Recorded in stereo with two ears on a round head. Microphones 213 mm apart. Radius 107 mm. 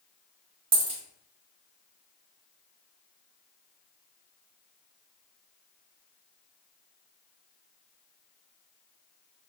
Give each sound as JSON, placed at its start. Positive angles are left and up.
{"t": 0.7, "sound": "a dropped coin", "side_deg": -25, "distance_m": 0.9}